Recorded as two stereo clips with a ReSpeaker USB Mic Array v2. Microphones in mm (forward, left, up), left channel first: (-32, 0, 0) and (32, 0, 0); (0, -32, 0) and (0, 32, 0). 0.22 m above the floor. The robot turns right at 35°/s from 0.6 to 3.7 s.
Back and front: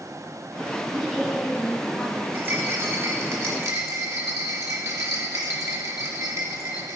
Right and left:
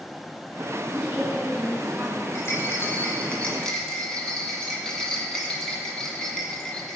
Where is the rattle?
60° right, 1.6 m; by 7.0 s 15° right, 1.6 m.